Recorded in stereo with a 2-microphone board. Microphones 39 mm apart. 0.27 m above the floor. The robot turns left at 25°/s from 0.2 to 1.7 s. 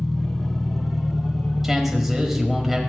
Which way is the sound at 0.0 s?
15° left.